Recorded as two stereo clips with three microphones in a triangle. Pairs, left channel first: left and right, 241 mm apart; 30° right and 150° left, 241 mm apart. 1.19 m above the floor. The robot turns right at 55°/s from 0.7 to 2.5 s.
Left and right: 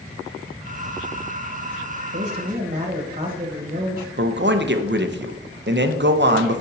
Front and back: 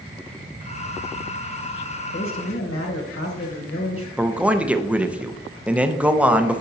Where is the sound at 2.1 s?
60° right, 1.3 m; by 4.1 s 35° right, 1.3 m.